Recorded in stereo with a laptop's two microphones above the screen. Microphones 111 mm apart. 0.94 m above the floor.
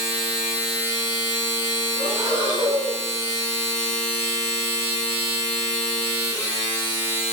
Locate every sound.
0.0 s a machine running: 15° right (ahead or behind), 2.5 m
1.9 s breathing: 35° right (ahead or behind), 3.5 m